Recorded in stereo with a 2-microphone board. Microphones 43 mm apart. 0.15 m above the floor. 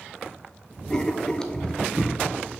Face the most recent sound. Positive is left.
turn(degrees=15)  # may be behind; listen again after turning